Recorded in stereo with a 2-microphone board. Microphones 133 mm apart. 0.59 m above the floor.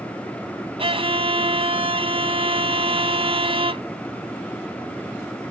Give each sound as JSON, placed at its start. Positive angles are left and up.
{"t": 0.8, "sound": "a violin", "side_deg": -45}